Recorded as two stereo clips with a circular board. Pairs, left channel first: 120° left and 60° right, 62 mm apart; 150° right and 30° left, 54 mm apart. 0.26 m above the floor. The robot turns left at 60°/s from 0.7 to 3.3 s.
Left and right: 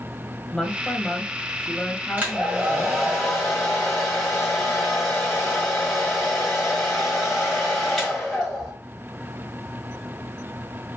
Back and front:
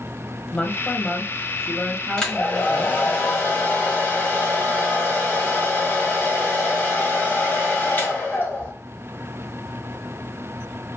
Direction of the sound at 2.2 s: 85° right.